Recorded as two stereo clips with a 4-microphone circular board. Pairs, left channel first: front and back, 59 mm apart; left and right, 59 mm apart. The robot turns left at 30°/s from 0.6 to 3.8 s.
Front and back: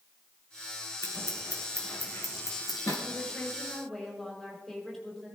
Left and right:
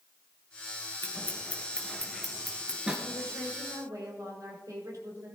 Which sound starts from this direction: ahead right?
A woman speaking, at 3.0 s.